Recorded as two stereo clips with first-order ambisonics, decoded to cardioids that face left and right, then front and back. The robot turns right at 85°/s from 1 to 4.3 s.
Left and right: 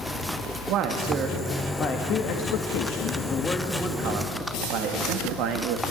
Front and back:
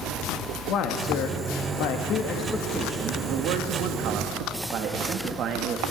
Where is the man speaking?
50° right, 2 m; by 5.8 s 125° right, 2 m.